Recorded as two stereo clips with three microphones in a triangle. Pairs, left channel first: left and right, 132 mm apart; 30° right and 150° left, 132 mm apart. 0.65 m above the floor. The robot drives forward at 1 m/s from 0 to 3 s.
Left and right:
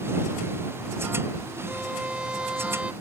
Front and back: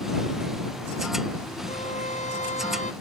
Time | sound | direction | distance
1.7 | a violin | 5° right | ?